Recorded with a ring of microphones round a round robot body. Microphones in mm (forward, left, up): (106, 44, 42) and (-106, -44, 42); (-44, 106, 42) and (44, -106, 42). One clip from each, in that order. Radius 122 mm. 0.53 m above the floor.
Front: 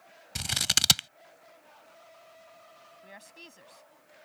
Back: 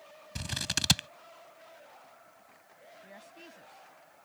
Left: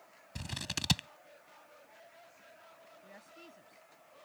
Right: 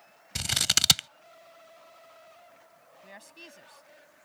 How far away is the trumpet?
I don't hear a trumpet.